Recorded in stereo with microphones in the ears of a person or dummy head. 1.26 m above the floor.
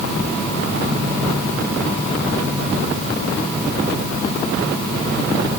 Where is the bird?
No bird in this recording.